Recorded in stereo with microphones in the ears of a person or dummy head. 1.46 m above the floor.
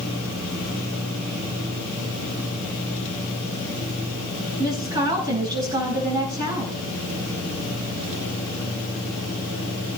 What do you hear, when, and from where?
4.6 s a woman speaking: 35° right (ahead or behind), 6.5 m